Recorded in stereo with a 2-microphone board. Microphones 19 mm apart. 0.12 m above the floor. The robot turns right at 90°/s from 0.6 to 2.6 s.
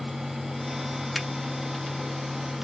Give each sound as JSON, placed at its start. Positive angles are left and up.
{"t": 1.1, "sound": "a finger snap", "side_deg": 0, "distance_m": 0.9}